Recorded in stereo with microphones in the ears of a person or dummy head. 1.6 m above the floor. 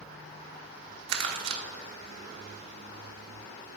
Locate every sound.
1.1 s crumpling: 60° right (ahead or behind), 0.9 m